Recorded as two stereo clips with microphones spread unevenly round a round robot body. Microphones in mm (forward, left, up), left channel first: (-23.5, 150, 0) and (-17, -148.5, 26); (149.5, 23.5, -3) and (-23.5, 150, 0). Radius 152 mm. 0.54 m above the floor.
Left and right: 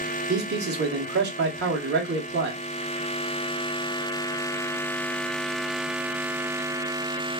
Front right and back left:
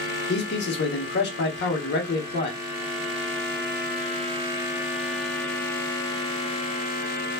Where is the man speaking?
35° right, 0.9 m.